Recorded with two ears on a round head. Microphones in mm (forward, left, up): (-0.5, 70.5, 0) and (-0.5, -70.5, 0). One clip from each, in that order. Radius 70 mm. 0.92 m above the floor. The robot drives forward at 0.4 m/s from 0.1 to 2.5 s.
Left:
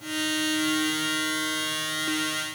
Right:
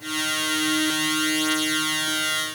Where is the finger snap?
I don't hear a finger snap.